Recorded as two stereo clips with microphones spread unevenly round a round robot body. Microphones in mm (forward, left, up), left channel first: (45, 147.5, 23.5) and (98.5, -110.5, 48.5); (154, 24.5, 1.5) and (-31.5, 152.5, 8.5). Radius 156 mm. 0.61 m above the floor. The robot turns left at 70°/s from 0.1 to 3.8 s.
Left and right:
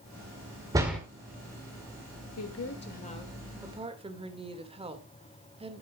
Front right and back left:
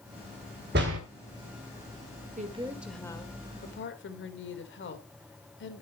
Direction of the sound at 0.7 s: 155° right.